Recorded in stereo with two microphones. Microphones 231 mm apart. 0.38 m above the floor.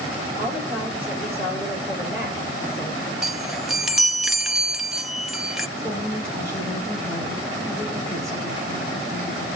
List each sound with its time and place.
0.4 s a woman speaking: 5° right (ahead or behind), 6.5 m
3.2 s a chime: centre (ahead or behind), 0.7 m
5.8 s a woman speaking: 15° right (ahead or behind), 5 m